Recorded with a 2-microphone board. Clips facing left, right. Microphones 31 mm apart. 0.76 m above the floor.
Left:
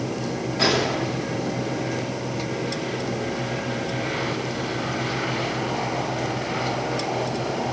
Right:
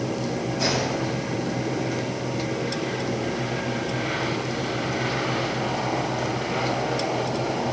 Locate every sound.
0.6 s a gunshot: 60° left (ahead or behind), 1.9 m